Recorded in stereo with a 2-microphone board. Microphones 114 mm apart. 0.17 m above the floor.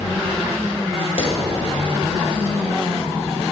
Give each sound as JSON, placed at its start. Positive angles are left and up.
{"t": 1.2, "sound": "a clap", "side_deg": 60, "distance_m": 2.0}